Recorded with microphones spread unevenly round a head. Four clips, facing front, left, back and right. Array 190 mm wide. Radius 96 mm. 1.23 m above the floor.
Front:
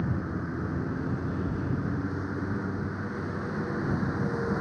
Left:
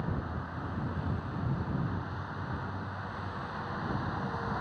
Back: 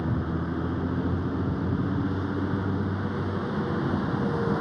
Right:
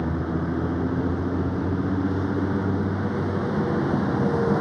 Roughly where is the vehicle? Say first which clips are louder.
Right 11 dB, back 3 dB; right.